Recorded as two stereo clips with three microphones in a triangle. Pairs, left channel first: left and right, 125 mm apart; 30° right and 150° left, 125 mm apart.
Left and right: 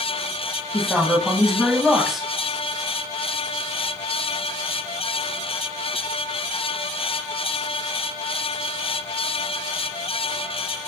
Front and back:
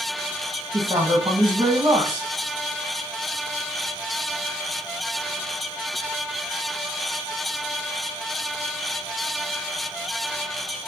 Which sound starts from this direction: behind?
A man speaking, at 0.7 s.